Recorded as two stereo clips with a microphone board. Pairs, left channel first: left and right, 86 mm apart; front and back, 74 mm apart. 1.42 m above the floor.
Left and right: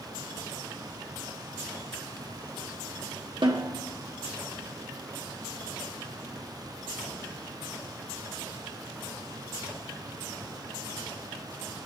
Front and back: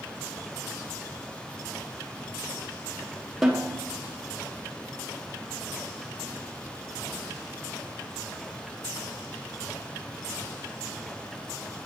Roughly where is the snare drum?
Right.